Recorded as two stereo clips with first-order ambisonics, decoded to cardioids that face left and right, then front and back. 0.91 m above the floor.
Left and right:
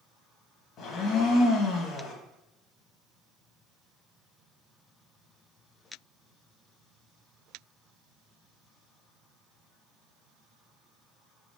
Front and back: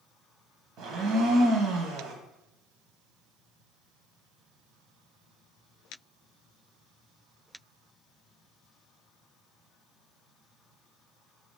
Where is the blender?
140° left, 1.5 m.